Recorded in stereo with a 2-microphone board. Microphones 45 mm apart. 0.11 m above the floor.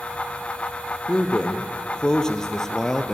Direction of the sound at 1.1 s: 25° left (ahead or behind).